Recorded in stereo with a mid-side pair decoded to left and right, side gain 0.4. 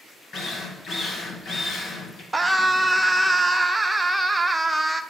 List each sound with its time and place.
0.3 s a drill: 55° left, 2 m
2.3 s a scream: 15° right, 1.0 m